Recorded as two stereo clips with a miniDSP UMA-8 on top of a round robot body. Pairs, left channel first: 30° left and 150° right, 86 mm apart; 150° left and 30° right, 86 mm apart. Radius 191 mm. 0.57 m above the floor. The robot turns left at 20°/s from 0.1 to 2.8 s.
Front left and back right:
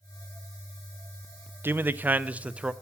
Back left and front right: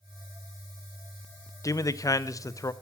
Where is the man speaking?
160° left, 0.6 m; by 2.7 s 140° left, 0.6 m.